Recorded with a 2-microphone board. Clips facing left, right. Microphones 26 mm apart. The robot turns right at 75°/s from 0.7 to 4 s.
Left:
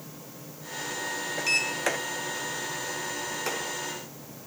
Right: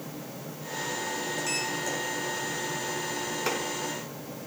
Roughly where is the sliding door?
Ahead left.